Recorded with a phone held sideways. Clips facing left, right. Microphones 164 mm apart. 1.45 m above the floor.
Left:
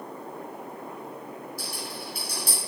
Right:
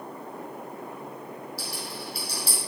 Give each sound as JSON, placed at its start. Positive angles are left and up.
{"t": 1.6, "sound": "a rattle", "side_deg": 55, "distance_m": 4.0}